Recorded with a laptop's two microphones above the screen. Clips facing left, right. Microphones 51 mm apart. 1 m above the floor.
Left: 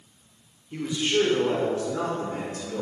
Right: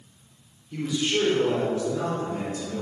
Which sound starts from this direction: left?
A man speaking, at 0.7 s.